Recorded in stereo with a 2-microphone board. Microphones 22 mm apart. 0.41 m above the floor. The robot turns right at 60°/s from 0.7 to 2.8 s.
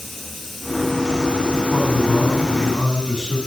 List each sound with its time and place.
0.0 s running water: straight ahead, 4 m; by 3.5 s 125° left, 4 m
1.7 s a man speaking: 85° right, 4 m; by 3.4 s 20° right, 4 m